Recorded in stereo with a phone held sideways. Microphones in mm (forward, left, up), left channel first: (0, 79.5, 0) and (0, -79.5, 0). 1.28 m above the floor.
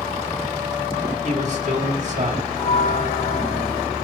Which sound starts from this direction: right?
A man speaking, at 1.2 s.